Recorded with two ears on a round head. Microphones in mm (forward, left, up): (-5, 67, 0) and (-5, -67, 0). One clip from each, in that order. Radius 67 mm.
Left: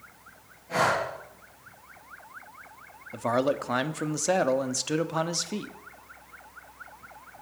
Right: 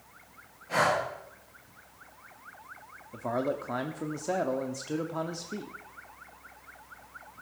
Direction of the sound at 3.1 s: 60° left (ahead or behind).